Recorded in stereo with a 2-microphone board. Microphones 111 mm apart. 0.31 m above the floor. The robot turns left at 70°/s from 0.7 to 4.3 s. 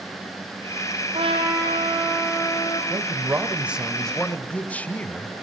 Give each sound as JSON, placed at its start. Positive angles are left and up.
{"t": 1.1, "sound": "a trumpet", "azimuth_deg": -115, "distance_m": 5.5}
{"t": 2.9, "sound": "a man speaking", "azimuth_deg": -105, "distance_m": 1.1}